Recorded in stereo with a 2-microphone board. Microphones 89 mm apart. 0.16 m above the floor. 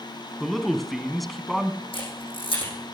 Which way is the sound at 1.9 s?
80° left.